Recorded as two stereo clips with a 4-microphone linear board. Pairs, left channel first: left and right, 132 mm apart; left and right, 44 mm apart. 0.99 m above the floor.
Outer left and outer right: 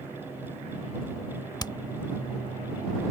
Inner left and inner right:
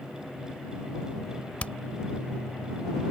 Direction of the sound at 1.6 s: 30° left (ahead or behind).